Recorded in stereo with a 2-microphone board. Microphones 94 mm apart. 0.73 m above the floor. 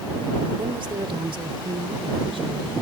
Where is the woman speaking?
65° right (ahead or behind); by 2.7 s 75° right (ahead or behind).